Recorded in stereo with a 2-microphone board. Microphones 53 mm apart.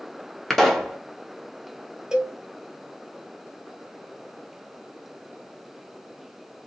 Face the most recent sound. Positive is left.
turn(degrees=-15)  # may be behind; listen again after turning